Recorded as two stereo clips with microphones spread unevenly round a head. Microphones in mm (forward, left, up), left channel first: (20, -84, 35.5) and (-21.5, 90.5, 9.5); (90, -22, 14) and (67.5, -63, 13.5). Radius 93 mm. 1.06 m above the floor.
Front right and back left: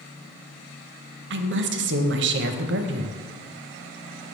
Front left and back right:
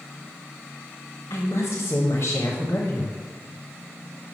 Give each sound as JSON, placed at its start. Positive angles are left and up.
{"t": 1.3, "sound": "a woman speaking", "azimuth_deg": 120, "distance_m": 0.6}